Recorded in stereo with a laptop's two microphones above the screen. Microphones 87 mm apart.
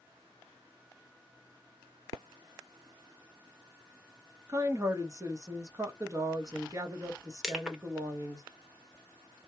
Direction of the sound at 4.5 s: 35° right (ahead or behind).